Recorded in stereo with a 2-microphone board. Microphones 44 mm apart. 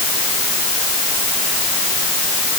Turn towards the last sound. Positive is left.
No sound to turn to.